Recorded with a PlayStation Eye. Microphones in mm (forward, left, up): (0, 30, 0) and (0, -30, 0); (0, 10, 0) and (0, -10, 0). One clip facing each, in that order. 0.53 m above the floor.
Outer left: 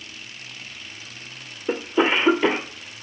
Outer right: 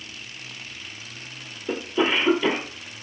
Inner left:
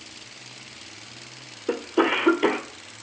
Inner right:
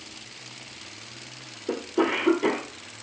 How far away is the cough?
About 1.7 m.